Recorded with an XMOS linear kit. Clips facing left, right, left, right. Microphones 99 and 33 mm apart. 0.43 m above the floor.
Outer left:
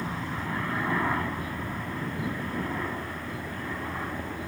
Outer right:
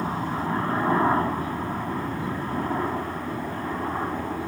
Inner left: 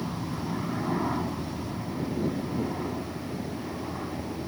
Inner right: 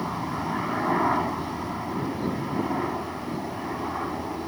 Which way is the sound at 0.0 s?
35° right (ahead or behind).